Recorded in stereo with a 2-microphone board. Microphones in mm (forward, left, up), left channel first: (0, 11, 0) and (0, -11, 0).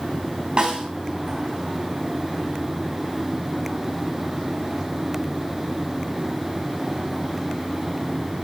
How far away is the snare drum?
About 3 m.